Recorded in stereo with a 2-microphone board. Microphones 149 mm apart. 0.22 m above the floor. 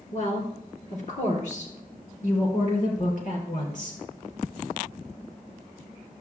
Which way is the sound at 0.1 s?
50° left (ahead or behind).